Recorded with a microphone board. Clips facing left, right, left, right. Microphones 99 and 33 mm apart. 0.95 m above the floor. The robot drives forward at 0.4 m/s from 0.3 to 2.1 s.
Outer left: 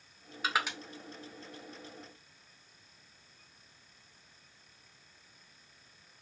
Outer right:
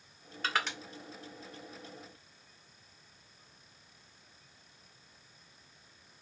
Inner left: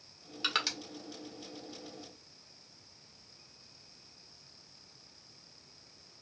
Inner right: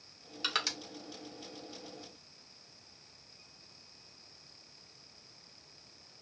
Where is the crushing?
10° left (ahead or behind), 0.8 m.